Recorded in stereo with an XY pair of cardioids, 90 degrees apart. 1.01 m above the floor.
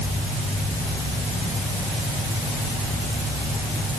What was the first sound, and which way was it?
Only background noise.